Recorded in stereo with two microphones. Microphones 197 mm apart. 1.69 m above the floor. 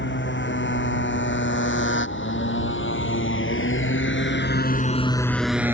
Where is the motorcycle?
70° left (ahead or behind); by 5.8 s 10° right (ahead or behind).